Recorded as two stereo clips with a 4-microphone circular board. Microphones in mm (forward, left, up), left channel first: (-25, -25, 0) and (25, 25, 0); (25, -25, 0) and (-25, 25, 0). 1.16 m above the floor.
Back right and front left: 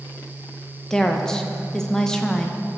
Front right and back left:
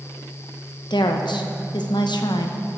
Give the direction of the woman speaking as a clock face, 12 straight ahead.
2 o'clock.